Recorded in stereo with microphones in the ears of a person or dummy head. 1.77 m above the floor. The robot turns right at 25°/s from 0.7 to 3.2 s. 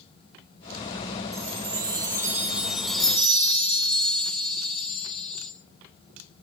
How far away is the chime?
About 1.1 m.